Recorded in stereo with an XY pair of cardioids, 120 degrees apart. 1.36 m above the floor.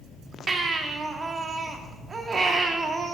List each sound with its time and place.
0.5 s a baby crying: 30° right, 1.9 m